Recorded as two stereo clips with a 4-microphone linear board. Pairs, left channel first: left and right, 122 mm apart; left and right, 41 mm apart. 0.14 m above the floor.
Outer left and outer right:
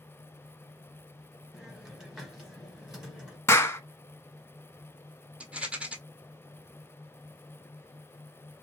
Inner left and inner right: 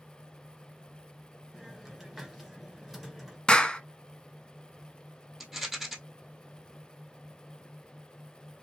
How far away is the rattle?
About 1.1 m.